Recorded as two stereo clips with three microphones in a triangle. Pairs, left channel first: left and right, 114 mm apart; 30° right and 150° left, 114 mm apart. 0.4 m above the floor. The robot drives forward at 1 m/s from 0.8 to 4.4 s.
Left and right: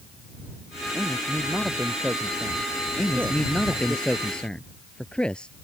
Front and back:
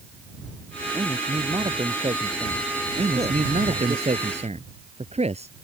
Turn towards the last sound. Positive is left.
turn(degrees=170)